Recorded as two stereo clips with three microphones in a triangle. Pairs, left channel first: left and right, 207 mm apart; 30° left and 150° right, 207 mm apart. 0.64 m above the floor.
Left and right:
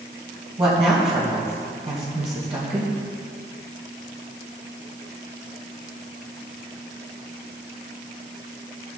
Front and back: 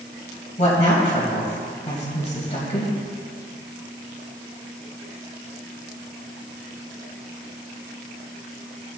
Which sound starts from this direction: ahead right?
A woman speaking, at 0.6 s.